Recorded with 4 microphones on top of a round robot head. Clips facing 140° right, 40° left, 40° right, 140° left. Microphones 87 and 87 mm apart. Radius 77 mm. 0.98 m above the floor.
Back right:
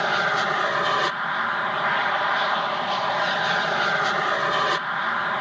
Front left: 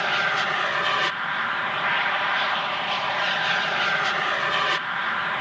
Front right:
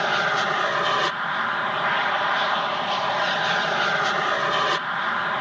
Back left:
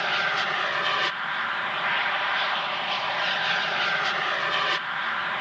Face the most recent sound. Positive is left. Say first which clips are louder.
# back right 2 dB, front right 4 dB
turn(degrees=-85)